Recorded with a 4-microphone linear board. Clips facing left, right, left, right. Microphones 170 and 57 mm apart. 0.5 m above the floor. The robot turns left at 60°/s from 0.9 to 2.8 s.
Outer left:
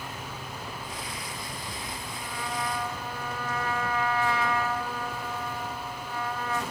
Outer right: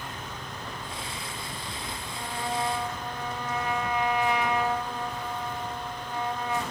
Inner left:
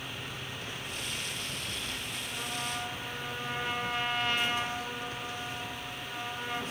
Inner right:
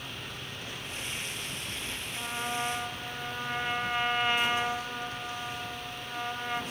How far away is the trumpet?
About 2.5 m.